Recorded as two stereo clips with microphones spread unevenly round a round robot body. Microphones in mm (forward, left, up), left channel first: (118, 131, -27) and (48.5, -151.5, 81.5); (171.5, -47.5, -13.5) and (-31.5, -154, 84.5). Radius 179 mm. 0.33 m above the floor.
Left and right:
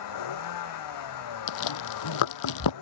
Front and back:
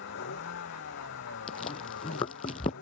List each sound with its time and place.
0.0 s a vehicle: 80° left; by 2.8 s 75° left
1.5 s chewing: 100° left